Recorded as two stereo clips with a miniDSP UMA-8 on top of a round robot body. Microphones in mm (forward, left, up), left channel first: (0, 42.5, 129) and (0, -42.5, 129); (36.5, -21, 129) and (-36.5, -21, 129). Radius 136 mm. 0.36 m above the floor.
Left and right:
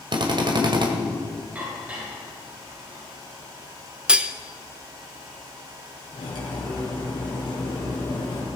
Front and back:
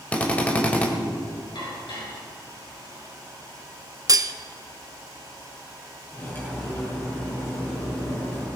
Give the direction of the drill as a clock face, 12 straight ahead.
2 o'clock.